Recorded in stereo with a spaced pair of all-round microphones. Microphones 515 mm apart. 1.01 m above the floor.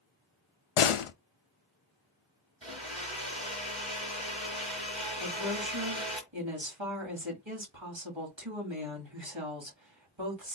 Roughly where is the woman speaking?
Right.